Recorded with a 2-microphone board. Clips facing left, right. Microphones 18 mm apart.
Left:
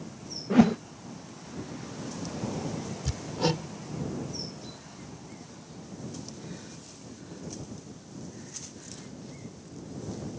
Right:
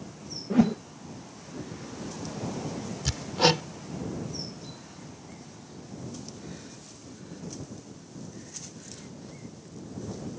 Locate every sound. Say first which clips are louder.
0.5 s a whoosh: left 2 dB; 25° left (ahead or behind)
3.0 s hammering: right 6 dB; 50° right (ahead or behind)